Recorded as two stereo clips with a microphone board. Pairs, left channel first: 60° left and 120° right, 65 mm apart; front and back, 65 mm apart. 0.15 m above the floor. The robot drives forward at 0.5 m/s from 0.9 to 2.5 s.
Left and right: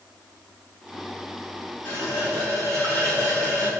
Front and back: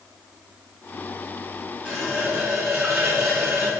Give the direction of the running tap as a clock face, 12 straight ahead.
9 o'clock.